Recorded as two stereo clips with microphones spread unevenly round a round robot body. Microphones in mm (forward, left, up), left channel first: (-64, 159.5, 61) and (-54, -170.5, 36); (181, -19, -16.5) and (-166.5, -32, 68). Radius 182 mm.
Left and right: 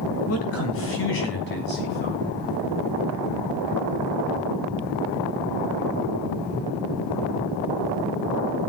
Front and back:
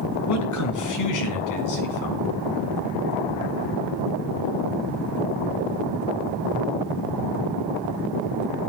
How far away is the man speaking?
About 3.5 m.